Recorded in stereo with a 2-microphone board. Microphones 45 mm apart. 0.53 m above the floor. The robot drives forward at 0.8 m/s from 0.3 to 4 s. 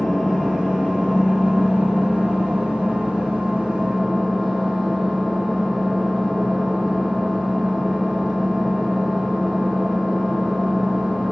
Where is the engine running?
5° left (ahead or behind), 4.5 m.